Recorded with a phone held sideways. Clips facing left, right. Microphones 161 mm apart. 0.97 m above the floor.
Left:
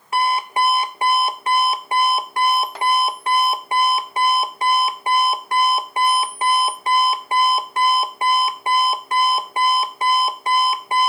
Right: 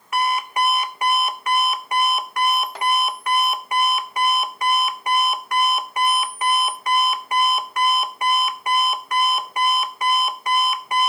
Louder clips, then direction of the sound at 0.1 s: Left 2 dB; 30° left (ahead or behind).